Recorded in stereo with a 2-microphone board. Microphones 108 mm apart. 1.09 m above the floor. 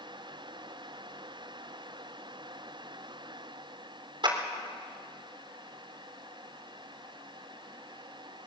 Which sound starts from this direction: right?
A clap, at 4.2 s.